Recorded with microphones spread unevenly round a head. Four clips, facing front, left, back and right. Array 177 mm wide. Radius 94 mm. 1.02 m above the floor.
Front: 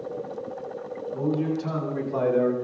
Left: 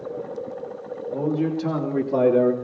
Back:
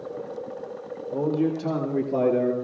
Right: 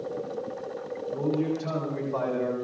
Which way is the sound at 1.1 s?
160° left.